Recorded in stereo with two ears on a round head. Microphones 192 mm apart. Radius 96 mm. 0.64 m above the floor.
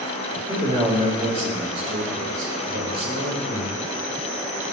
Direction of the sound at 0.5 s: 20° right (ahead or behind).